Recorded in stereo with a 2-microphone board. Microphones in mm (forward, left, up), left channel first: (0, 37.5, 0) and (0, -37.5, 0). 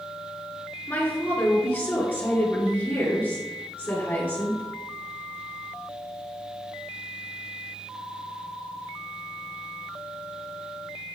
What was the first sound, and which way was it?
A woman speaking, 25° left (ahead or behind).